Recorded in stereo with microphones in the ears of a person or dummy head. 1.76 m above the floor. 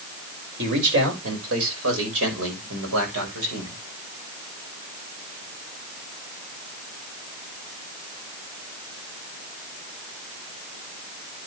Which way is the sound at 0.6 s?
70° right (ahead or behind).